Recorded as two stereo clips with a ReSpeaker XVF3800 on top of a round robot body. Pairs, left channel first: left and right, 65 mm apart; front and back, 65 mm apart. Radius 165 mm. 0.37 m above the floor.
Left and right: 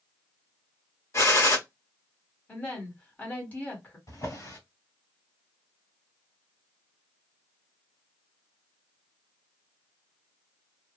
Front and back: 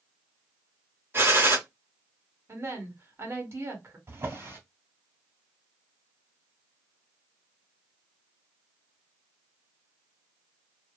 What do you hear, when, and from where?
1.1 s a gunshot: 130° left, 1.8 m
2.5 s a woman speaking: 150° left, 2.0 m
4.1 s a drawer: 130° left, 1.9 m